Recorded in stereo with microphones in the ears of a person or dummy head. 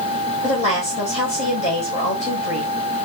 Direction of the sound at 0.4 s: 45° left (ahead or behind).